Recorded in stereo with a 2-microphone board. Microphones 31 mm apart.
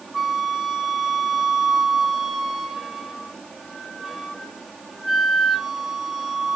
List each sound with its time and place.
0.1 s a flute: 10° right (ahead or behind), 1.5 m